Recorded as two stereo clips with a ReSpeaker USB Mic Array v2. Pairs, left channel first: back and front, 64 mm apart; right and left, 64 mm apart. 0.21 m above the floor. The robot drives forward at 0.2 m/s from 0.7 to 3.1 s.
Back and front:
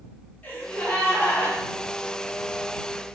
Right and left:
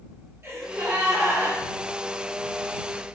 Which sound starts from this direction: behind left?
A gasp, at 0.4 s.